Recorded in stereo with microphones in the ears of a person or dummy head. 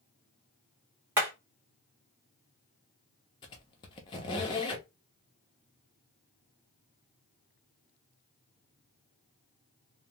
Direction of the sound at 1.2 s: 10° right (ahead or behind).